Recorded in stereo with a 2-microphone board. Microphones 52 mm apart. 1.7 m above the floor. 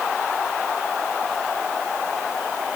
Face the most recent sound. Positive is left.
No sound to turn to.